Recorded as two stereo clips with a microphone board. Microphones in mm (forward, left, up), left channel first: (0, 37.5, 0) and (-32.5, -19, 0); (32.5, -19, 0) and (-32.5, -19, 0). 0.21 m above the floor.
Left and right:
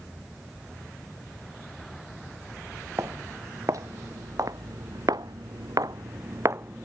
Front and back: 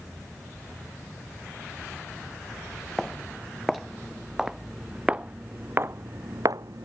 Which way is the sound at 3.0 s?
85° right.